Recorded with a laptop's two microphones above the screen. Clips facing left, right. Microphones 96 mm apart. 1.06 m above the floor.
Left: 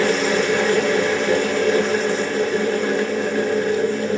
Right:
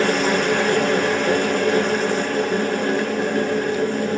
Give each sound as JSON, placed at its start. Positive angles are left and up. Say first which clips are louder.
{"t": 0.0, "sound": "a machine running", "louder": "even", "side_deg": -50, "distance_m": 0.9}